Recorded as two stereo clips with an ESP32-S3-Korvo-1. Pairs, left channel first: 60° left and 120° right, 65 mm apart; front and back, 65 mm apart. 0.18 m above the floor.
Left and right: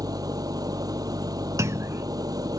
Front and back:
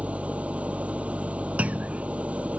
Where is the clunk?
120° right.